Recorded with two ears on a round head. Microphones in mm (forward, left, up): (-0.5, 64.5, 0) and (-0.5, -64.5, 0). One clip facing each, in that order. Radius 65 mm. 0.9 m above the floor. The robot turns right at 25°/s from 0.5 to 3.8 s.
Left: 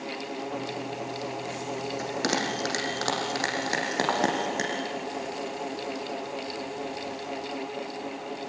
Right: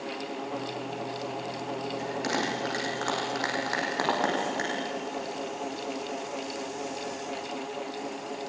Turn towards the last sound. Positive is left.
turn(degrees=-15)  # may be behind; listen again after turning